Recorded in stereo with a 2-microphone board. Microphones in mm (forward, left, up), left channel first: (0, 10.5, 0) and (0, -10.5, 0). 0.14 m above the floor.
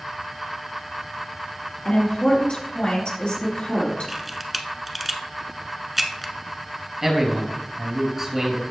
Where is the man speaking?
20° right (ahead or behind), 2.5 m.